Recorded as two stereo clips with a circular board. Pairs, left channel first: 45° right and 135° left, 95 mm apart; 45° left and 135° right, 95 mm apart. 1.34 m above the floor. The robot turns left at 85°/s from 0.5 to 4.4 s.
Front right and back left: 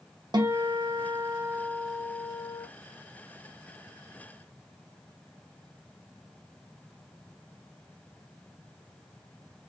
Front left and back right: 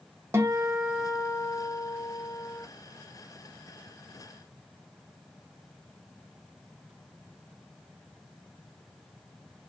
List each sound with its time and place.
0.3 s a guitar: 165° left, 0.5 m; by 2.7 s 15° right, 0.5 m